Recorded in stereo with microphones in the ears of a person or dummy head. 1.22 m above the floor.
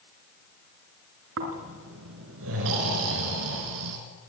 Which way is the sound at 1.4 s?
70° right (ahead or behind).